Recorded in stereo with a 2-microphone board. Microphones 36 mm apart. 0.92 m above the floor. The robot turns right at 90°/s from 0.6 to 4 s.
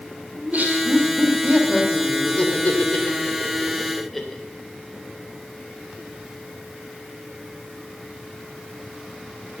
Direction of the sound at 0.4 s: 50° right (ahead or behind).